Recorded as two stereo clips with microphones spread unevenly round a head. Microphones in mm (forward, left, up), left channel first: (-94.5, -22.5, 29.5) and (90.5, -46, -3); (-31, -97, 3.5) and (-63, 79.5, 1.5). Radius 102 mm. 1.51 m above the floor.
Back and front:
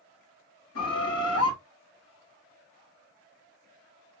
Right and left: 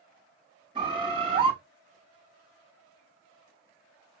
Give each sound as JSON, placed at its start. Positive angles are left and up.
{"t": 0.8, "sound": "a bird", "azimuth_deg": 165, "distance_m": 2.0}